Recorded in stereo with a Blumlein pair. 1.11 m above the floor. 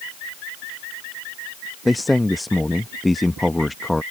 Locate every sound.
1.9 s a man speaking: 5° left